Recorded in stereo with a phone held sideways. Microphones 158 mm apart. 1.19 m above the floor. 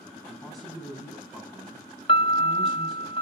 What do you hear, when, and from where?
0.3 s a man speaking: centre (ahead or behind), 7.5 m
2.1 s a piano: 35° left (ahead or behind), 0.5 m